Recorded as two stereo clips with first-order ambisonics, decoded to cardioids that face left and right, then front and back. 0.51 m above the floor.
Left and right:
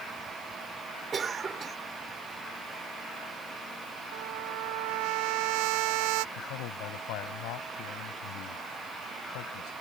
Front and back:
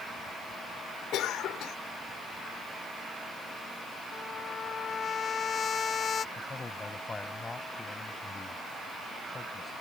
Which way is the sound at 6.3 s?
80° left.